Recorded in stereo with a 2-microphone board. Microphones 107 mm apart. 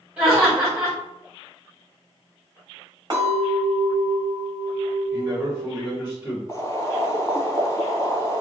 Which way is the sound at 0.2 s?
5° right (ahead or behind).